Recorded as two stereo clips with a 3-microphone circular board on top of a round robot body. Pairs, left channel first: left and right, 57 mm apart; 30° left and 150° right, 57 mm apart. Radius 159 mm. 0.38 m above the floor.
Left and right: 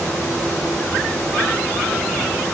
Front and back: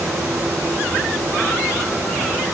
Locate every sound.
Only background noise.